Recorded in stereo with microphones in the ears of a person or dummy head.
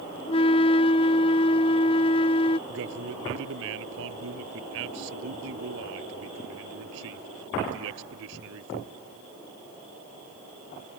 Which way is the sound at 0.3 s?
25° left (ahead or behind).